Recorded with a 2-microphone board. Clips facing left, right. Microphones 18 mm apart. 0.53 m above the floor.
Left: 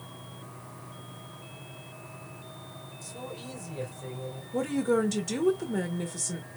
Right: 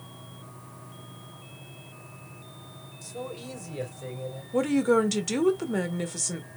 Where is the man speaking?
25° right (ahead or behind), 2.5 m; by 4.4 s 50° right (ahead or behind), 3 m.